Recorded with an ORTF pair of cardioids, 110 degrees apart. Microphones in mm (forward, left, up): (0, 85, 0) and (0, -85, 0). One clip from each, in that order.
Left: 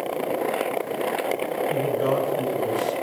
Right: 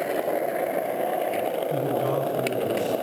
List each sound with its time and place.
1.7 s a man speaking: 40° left, 7 m; by 2.9 s 50° left, 7.5 m